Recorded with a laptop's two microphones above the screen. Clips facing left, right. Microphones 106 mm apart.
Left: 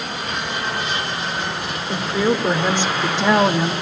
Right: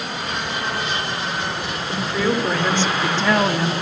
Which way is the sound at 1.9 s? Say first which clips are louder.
Left 2 dB; 15° left (ahead or behind).